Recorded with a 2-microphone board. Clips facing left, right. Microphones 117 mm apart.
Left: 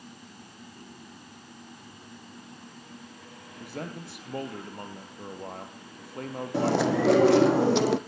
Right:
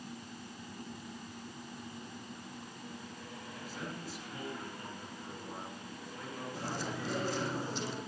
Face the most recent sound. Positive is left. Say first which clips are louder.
# left 17 dB
turn(degrees=75)  # may be behind; listen again after turning